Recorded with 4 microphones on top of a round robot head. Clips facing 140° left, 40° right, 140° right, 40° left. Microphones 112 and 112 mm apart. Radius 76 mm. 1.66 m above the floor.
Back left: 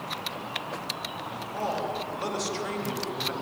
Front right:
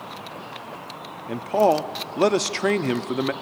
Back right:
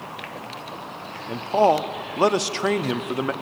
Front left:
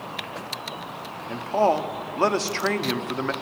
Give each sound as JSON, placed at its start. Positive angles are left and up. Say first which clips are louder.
{"t": 1.3, "sound": "a man speaking", "louder": "front right 13 dB, back right 3 dB", "azimuth_deg": -65, "distance_m": 0.8}